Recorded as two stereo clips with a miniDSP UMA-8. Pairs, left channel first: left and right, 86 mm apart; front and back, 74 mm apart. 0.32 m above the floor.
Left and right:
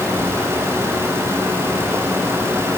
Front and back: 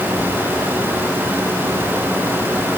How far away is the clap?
No clap in this recording.